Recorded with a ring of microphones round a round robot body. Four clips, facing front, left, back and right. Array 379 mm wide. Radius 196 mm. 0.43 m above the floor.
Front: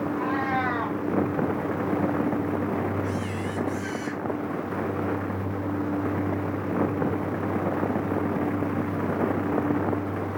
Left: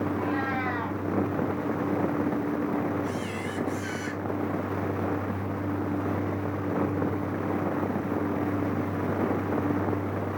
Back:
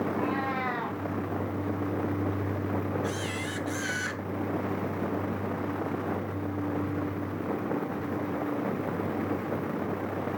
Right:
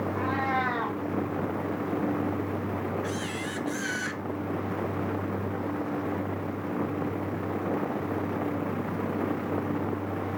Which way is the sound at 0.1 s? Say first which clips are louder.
Right 1 dB, front 4 dB; 25° right.